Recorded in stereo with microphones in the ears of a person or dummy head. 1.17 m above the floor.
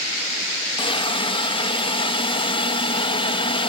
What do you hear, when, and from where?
0.8 s a hiss: 30° left (ahead or behind)